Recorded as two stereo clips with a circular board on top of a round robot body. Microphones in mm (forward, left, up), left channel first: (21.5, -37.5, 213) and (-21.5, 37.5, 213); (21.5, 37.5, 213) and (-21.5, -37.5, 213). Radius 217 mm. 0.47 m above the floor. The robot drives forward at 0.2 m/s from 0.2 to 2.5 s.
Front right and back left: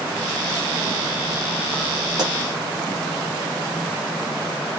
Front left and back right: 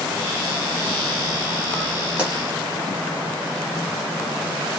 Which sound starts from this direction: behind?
A pop, at 2.2 s.